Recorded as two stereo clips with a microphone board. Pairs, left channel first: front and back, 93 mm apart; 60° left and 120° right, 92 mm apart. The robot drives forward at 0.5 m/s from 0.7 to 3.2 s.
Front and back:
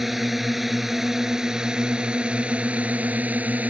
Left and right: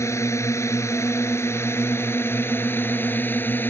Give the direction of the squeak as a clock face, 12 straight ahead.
I don't hear a squeak.